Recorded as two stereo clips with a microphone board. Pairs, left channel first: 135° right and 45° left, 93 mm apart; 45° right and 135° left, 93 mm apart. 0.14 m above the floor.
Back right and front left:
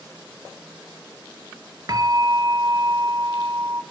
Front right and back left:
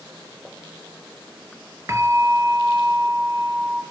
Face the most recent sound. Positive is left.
turn(degrees=80)